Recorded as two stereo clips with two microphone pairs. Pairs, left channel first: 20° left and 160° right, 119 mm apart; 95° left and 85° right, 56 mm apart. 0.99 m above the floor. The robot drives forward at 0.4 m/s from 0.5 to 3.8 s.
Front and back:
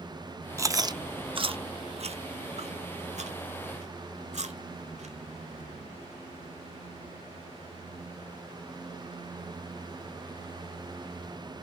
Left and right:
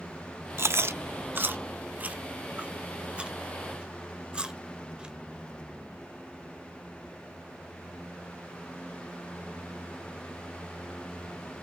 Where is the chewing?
105° right, 0.6 m; by 5.1 s 160° right, 1.5 m.